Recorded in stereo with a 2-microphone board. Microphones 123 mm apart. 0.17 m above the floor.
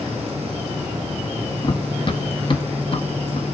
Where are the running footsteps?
40° left (ahead or behind), 0.5 m.